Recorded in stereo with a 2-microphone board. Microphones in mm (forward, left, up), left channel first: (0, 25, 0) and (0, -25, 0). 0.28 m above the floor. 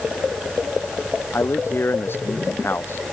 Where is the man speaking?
55° left (ahead or behind).